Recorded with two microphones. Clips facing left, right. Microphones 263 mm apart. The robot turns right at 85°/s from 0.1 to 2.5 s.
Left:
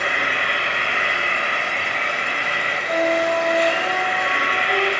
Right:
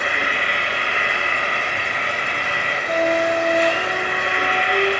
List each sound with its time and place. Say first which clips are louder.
0.0 s an insect: even; 50° left, 1.6 m; by 5.0 s 105° right, 1.6 m
2.9 s a flute: right 1 dB; 45° right (ahead or behind), 1.1 m